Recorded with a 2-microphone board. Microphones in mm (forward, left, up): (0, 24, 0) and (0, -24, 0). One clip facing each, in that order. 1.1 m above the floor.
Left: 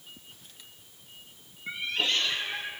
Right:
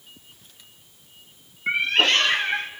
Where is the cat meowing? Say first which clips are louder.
Right 10 dB; 60° right (ahead or behind), 0.6 m.